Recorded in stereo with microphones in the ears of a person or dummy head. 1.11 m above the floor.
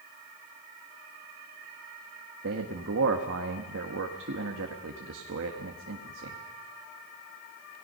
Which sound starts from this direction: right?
A man speaking, at 2.4 s.